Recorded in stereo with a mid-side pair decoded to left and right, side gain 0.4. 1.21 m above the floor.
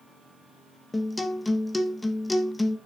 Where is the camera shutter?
I don't hear a camera shutter.